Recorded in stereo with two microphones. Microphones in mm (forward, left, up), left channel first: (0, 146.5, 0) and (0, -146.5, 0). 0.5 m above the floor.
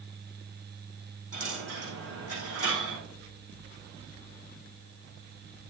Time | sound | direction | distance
1.3 | a dropped coin | 85° right | 6 m